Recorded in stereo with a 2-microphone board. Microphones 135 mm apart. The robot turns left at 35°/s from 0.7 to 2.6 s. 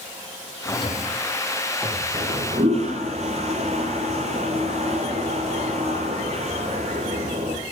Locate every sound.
0.7 s a drawer: 40° left (ahead or behind), 5 m; by 2.0 s 5° right (ahead or behind), 5 m
2.1 s a toilet flushing: 40° right (ahead or behind), 4.5 m; by 7.6 s 55° right (ahead or behind), 4.5 m